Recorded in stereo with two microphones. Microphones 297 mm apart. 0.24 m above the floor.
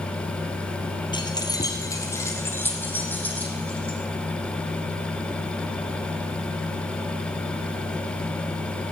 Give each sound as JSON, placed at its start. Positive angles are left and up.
{"t": 1.1, "sound": "keys jangling", "side_deg": 15, "distance_m": 3.5}